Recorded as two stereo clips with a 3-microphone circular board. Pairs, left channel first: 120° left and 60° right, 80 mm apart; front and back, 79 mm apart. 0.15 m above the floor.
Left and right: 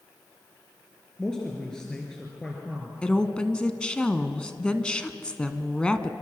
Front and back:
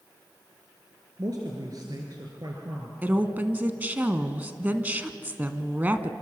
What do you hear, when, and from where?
1.2 s a man speaking: 160° right, 3 m
3.0 s a woman speaking: 175° left, 1.1 m